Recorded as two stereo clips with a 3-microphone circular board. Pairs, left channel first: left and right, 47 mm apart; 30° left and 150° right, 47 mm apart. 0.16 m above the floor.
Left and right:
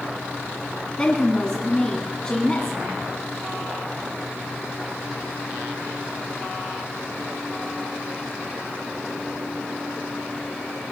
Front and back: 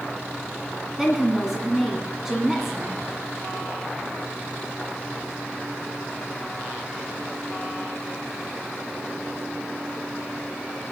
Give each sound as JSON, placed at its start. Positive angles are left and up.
{"t": 1.0, "sound": "a woman speaking", "azimuth_deg": 135, "distance_m": 1.7}